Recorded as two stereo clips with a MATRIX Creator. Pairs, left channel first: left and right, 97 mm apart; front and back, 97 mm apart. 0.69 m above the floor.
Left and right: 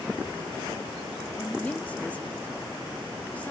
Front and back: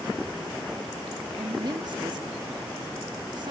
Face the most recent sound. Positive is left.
turn(degrees=160)